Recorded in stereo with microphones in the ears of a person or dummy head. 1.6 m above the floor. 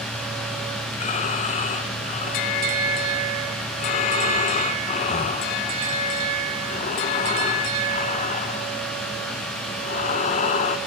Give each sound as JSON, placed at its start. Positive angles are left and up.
{"t": 0.9, "sound": "breathing", "side_deg": 40, "distance_m": 1.5}